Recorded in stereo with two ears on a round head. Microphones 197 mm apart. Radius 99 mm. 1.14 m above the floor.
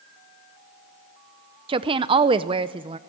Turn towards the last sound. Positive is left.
turn(degrees=-20)  # may be behind; listen again after turning